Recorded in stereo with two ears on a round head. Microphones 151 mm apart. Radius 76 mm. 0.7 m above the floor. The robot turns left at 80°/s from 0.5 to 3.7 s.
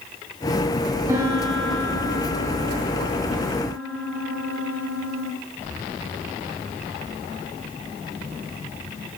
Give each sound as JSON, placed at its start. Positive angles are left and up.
{"t": 1.1, "sound": "a piano", "azimuth_deg": -145, "distance_m": 0.5}